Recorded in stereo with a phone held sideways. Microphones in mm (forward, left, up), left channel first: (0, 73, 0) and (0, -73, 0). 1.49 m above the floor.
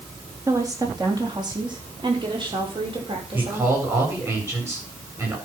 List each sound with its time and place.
0.5 s a woman speaking: 20° right (ahead or behind), 3 m; by 3.7 s 35° right (ahead or behind), 6 m
3.3 s a man speaking: 20° right (ahead or behind), 8.5 m